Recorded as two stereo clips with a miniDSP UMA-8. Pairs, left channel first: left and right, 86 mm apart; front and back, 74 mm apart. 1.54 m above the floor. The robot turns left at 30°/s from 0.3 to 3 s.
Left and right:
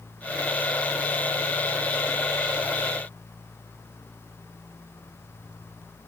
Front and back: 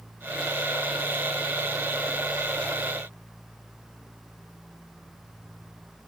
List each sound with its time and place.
Only background noise.